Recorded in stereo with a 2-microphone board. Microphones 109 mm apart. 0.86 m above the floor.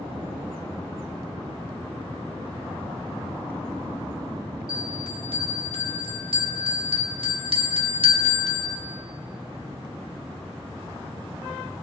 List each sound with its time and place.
4.7 s a bell: 55° right (ahead or behind), 1.0 m